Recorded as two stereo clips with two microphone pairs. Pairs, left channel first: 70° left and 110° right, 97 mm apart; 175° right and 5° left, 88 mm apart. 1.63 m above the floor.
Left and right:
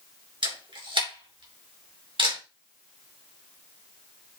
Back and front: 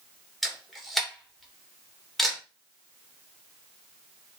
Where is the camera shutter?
85° right, 2.5 m.